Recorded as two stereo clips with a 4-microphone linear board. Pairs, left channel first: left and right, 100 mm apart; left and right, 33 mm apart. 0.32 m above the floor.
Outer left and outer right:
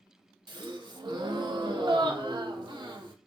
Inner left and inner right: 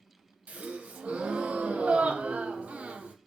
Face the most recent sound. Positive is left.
turn(degrees=-50)  # may be behind; listen again after turning